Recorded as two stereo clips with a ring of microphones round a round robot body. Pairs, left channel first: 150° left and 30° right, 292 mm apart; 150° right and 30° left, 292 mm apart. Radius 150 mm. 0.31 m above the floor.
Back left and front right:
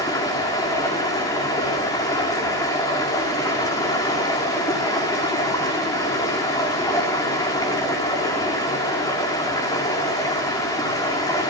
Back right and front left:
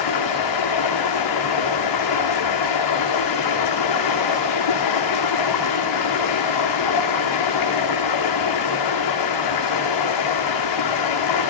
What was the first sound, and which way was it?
Running water, 130° right.